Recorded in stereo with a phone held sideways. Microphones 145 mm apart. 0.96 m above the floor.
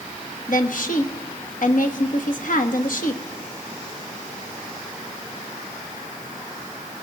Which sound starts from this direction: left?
A woman speaking, at 0.5 s.